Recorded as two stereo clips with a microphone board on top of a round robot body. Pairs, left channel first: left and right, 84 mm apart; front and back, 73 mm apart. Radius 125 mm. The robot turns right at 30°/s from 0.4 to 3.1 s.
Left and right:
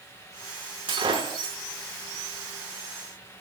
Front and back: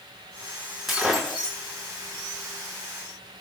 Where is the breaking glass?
95° right, 6.5 m; by 1.6 s 75° right, 6.5 m.